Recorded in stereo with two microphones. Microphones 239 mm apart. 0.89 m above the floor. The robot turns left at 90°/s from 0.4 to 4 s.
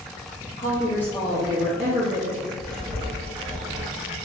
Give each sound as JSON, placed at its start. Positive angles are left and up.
{"t": 0.6, "sound": "a woman speaking", "azimuth_deg": 50, "distance_m": 1.2}
{"t": 2.6, "sound": "writing", "azimuth_deg": 15, "distance_m": 1.0}